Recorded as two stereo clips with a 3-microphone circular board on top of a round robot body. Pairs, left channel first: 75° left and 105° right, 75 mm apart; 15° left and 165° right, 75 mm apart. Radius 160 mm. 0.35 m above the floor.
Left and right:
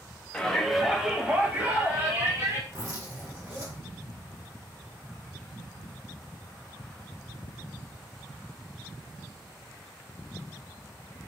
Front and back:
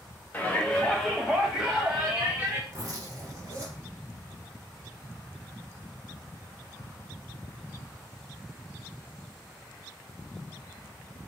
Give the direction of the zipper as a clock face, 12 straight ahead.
4 o'clock.